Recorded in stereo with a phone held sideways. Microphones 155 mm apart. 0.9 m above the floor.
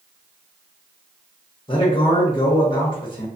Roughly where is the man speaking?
Left.